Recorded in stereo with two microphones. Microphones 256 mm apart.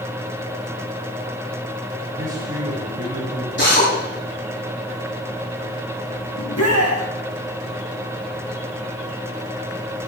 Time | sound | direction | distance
2.2 | a man speaking | 15° right (ahead or behind) | 7.5 m
3.6 | a drill | 45° left (ahead or behind) | 9 m
6.4 | a shout | 75° left (ahead or behind) | 2.5 m